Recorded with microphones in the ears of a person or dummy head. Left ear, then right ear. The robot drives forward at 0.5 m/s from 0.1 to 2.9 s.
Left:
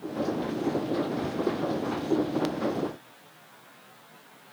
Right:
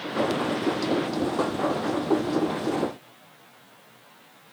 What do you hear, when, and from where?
Only background noise.